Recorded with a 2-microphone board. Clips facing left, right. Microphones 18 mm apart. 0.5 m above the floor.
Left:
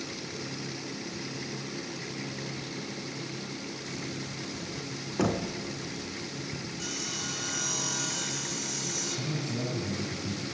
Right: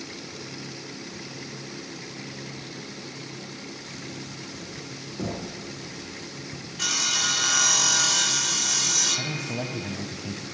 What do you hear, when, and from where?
5.2 s knocking: 55° left (ahead or behind), 4 m
6.8 s sawing: 60° right (ahead or behind), 0.7 m
9.2 s a man speaking: 75° right (ahead or behind), 3 m